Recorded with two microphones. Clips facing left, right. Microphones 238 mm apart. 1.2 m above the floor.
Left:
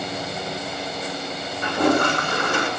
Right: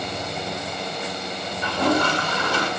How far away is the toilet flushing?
About 7 m.